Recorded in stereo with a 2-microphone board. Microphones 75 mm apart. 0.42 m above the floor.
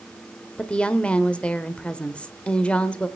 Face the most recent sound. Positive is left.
turn(degrees=15)  # may be behind; listen again after turning